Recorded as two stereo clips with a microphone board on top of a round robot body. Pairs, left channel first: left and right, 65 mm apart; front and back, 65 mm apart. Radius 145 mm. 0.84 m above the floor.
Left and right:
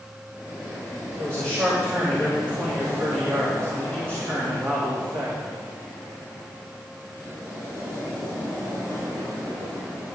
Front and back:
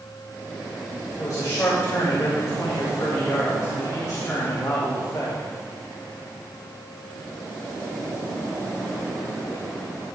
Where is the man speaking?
45° right, 2.5 m.